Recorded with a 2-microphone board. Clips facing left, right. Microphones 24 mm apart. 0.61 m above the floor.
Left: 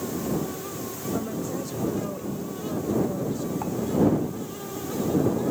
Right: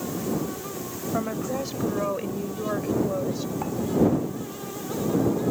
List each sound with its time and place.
1.1 s a woman speaking: 40° right (ahead or behind); by 3.5 s 60° right (ahead or behind)
3.6 s dishes clattering: 20° right (ahead or behind)